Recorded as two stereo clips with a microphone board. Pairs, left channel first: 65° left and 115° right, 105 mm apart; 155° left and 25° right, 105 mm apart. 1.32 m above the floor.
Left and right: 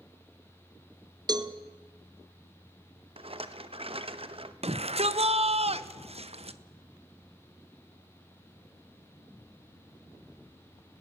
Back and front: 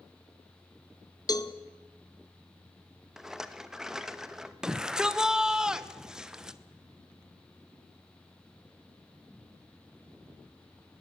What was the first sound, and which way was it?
A cowbell, 155° right.